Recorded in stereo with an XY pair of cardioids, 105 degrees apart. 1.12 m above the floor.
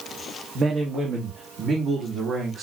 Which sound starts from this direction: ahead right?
A man speaking, at 0.6 s.